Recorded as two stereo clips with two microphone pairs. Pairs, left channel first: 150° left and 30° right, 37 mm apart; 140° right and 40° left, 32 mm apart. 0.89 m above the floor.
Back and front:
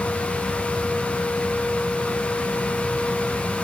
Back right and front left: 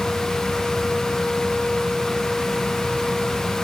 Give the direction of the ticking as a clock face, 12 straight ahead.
No ticking in this recording.